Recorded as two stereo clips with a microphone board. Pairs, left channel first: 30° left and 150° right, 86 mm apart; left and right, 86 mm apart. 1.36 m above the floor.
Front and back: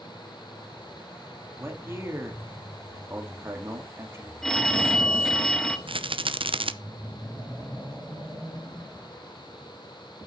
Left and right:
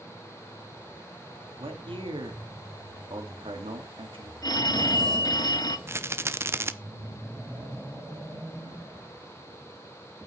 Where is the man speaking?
90° right, 2.5 m.